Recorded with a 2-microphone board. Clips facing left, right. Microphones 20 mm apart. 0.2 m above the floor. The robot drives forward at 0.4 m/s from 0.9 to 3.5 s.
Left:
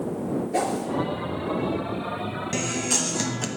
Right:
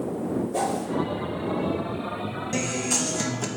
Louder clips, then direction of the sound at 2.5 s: Even; 20° left (ahead or behind).